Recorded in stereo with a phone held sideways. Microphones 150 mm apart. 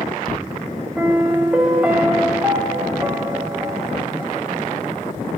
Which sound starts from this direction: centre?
A piano, at 1.0 s.